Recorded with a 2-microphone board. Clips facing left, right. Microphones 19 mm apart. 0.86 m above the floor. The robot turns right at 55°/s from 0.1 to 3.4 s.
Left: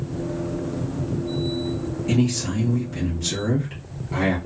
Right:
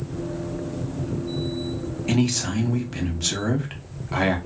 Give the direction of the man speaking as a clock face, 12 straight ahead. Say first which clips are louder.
Even; 4 o'clock.